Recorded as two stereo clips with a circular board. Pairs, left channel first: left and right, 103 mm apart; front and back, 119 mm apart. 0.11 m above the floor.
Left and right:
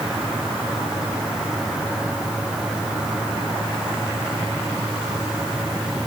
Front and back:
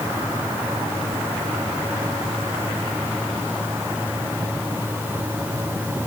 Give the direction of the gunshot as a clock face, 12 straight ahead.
I don't hear a gunshot.